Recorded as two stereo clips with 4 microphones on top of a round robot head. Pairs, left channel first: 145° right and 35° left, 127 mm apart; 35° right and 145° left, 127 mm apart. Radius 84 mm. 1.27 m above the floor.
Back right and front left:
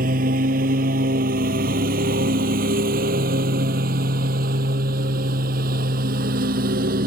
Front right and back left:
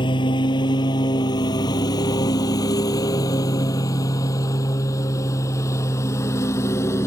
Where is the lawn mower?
20° left; by 7.1 s 35° left.